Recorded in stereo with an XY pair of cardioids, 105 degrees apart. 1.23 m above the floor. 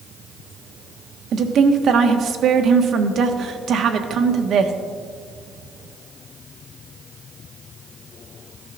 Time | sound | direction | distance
1.3 | a woman speaking | 60° right | 1.3 m